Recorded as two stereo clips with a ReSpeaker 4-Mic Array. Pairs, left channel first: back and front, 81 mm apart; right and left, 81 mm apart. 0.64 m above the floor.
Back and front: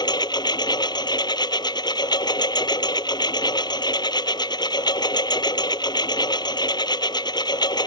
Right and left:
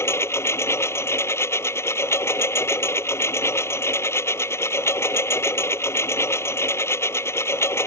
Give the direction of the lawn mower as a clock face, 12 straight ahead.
5 o'clock.